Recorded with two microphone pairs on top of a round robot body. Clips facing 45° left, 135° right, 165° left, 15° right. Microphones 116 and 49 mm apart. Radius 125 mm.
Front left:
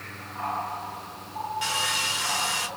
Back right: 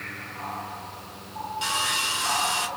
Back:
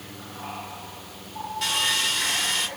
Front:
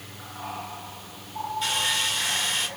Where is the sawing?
165° left, 4 m.